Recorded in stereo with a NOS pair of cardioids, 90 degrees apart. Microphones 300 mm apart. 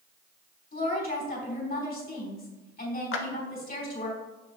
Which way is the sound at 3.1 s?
45° left.